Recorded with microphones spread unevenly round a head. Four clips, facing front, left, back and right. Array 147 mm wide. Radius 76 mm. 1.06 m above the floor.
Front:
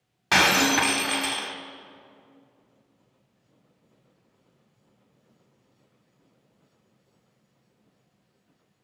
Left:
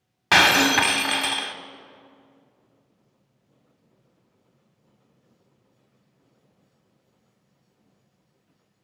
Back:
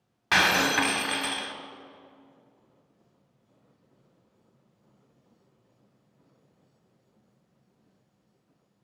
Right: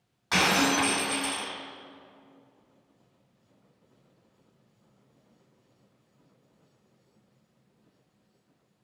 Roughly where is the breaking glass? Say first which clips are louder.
Left 6 dB, front 2 dB; left.